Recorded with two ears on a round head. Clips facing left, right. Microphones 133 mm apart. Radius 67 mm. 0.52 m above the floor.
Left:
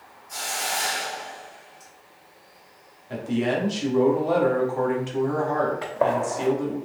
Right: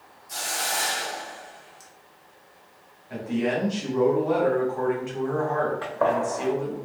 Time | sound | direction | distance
0.3 | a hiss | 40° right (ahead or behind) | 0.9 m
3.1 | a man speaking | 35° left (ahead or behind) | 1.1 m
5.8 | a gunshot | 20° left (ahead or behind) | 0.5 m